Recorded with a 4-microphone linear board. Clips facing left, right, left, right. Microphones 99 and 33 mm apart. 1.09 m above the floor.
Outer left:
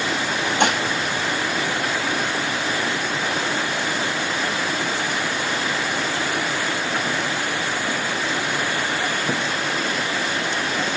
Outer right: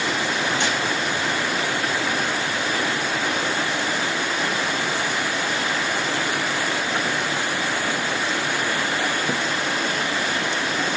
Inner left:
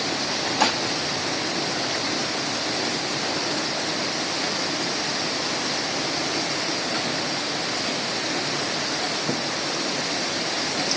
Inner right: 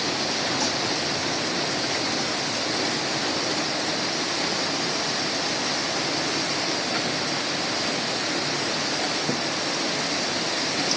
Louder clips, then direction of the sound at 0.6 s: Outer left 4 dB, inner left 5 dB; 60° left (ahead or behind).